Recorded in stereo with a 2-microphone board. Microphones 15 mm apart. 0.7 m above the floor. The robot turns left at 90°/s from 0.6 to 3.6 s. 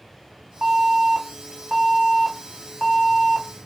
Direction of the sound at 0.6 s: 65° right.